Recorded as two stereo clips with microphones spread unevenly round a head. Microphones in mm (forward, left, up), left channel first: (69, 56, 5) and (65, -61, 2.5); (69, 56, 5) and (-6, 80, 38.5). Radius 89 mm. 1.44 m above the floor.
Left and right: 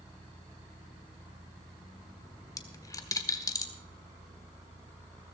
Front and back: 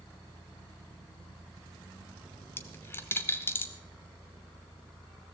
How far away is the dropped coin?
About 1.2 m.